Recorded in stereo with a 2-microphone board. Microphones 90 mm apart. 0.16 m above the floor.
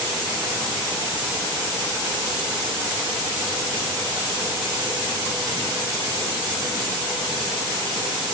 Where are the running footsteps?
I don't hear running footsteps.